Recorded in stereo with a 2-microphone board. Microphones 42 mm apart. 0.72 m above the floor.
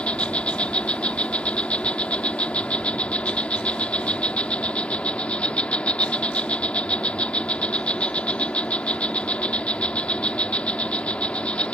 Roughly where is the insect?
Left.